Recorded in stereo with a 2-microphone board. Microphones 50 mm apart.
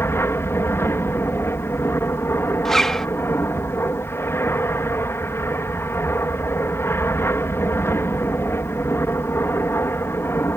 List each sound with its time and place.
0.0 s an aircraft: 55° left (ahead or behind)
2.6 s a zipper: 10° left (ahead or behind)